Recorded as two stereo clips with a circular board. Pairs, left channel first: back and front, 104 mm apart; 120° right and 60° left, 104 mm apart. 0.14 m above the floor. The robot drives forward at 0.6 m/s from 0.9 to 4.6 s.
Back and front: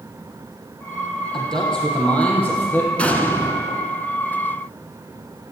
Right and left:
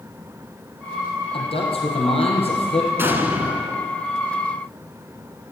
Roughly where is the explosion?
Left.